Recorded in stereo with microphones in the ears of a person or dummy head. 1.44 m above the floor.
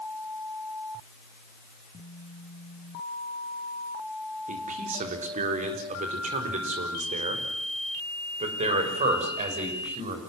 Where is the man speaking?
45° right (ahead or behind), 4 m; by 10.2 s 40° right (ahead or behind), 7 m.